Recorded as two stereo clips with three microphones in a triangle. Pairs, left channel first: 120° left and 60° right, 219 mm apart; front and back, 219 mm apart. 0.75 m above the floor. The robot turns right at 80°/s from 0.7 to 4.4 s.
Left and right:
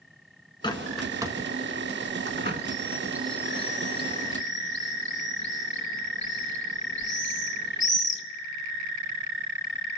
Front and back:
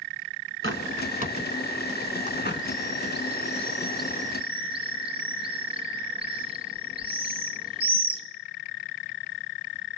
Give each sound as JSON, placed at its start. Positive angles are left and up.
{"t": 0.6, "sound": "a bird", "azimuth_deg": -175, "distance_m": 1.2}